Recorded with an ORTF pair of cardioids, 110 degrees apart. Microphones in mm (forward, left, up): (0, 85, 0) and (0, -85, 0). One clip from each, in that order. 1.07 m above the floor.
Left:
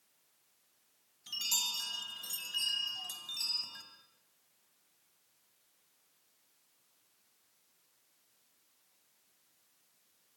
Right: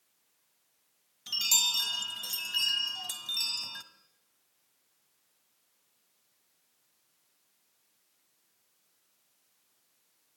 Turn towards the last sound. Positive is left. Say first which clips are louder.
# right 7 dB
turn(degrees=-40)